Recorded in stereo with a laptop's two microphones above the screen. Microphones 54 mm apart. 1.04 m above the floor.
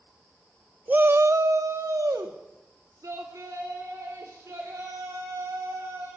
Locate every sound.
0.9 s a shout: 30° right (ahead or behind), 0.7 m; by 6.1 s 75° right (ahead or behind), 6.5 m